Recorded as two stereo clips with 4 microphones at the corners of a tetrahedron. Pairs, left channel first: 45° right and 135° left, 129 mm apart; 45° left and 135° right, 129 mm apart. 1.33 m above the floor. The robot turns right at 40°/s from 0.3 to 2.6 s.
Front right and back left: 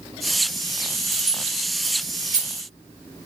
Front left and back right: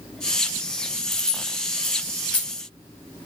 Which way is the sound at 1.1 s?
75° left.